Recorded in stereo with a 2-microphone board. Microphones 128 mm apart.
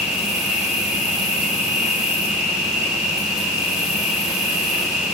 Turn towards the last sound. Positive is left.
turn(degrees=-5)  # may be behind; listen again after turning